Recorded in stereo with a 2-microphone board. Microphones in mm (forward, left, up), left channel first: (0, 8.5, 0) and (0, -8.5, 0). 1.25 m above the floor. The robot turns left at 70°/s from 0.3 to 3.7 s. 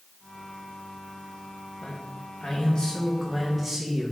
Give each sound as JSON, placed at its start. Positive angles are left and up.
{"t": 1.8, "sound": "a man speaking", "azimuth_deg": 115, "distance_m": 1.7}